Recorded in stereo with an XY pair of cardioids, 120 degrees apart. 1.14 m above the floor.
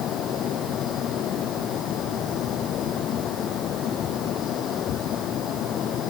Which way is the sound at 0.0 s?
65° left.